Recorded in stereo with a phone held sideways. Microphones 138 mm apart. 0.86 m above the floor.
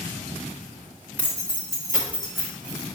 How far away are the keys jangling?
About 1.3 m.